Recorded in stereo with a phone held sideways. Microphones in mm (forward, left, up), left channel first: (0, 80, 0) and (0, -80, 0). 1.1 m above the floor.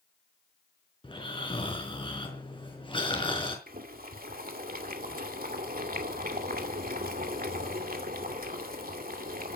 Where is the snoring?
35° left (ahead or behind), 4.5 m.